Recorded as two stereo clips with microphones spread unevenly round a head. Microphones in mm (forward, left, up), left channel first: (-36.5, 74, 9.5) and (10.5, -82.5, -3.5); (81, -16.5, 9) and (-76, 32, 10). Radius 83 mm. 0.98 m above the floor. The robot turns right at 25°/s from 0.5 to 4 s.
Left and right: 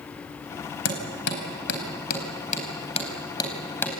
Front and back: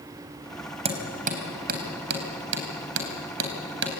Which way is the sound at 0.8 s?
110° left.